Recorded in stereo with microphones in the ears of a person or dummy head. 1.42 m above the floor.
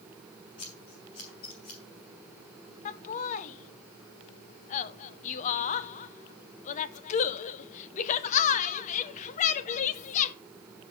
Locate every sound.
0.6 s scissors: 25° left (ahead or behind), 1.2 m
2.9 s laughter: 40° left (ahead or behind), 0.6 m